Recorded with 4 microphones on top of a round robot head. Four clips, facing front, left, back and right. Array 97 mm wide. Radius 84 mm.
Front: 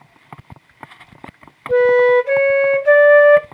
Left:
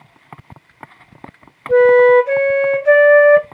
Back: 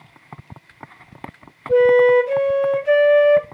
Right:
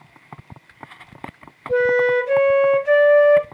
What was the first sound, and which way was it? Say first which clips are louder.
A flute: left 8 dB, front 1 dB; 45° left.